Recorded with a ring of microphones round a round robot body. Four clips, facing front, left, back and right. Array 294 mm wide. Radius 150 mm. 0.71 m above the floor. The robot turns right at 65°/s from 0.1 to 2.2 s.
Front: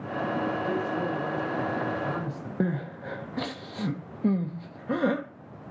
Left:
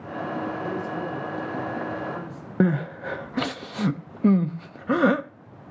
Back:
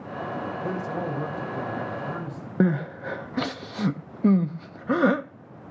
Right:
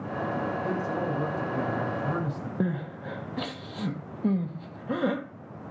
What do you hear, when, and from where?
0.6 s a man speaking: 170° left, 3.5 m; by 2.5 s 85° right, 3.5 m
2.6 s crying: 125° left, 0.9 m